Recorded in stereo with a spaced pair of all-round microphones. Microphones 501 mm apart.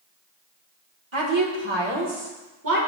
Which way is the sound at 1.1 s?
65° right (ahead or behind).